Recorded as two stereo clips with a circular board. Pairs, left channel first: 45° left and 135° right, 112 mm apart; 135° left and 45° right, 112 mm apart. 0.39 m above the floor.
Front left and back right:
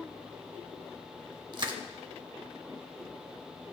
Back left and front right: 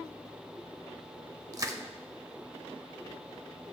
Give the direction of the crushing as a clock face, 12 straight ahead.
3 o'clock.